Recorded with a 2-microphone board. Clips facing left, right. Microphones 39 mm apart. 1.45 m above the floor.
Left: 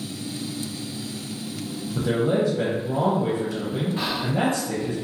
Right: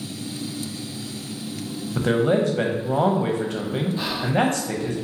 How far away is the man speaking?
About 0.6 m.